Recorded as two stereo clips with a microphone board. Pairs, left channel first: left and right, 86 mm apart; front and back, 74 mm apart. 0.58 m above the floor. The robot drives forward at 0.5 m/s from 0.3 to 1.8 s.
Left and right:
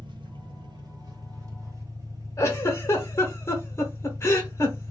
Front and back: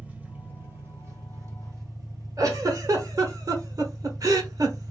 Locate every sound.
0.0 s an engine running: 110° right, 0.9 m; by 4.9 s 140° right, 1.3 m
2.4 s a giggle: 145° left, 0.8 m